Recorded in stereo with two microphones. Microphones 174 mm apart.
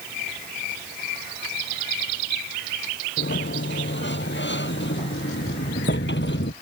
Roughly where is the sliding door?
Left.